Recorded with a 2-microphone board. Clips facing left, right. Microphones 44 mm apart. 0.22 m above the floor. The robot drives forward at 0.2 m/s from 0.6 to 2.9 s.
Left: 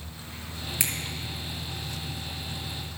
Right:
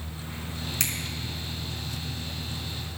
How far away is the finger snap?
About 1.3 m.